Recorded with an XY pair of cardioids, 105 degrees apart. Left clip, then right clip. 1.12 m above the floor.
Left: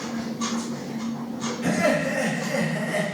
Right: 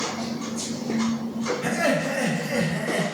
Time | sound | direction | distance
1.6 | laughter | 5° right | 2.5 m